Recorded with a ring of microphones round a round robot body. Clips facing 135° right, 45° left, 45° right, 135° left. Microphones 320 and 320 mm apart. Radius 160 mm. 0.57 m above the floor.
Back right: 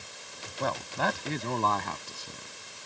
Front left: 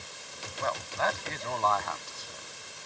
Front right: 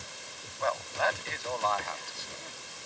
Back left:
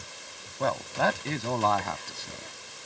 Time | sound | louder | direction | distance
0.6 | a man speaking | back right 2 dB, back left 4 dB | straight behind | ?